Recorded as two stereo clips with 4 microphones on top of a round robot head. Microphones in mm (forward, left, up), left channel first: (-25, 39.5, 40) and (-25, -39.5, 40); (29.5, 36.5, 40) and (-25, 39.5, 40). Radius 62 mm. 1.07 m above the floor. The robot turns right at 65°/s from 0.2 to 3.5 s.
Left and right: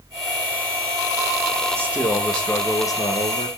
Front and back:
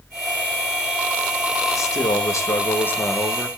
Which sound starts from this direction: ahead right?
A man speaking, at 1.8 s.